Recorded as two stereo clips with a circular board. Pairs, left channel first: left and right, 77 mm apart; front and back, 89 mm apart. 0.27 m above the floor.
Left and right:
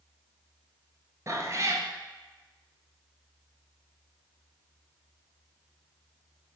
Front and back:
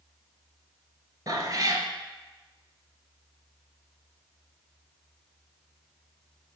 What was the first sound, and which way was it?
A cat meowing, 135° right.